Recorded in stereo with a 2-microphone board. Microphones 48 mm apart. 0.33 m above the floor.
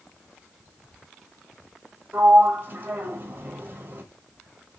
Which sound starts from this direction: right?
A sliding door, at 2.1 s.